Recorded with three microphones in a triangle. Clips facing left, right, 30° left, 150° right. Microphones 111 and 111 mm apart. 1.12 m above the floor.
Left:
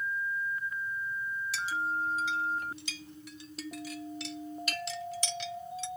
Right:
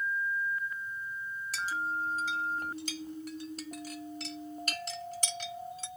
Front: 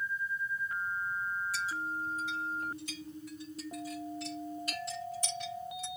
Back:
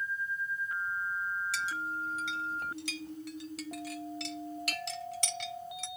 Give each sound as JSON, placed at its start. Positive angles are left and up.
{"t": 1.5, "sound": "a clink", "azimuth_deg": -140, "distance_m": 1.2}